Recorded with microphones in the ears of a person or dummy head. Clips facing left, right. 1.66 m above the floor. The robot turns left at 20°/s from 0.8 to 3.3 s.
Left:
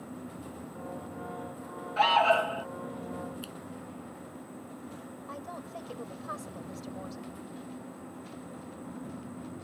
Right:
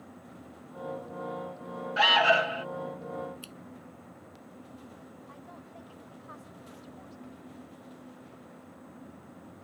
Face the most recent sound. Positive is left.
turn(degrees=80)